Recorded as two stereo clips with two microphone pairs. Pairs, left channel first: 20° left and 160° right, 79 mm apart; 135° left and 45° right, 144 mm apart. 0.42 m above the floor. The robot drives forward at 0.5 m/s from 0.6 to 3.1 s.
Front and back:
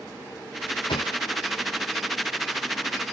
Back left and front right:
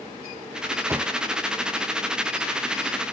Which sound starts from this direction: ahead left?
A thud, at 0.9 s.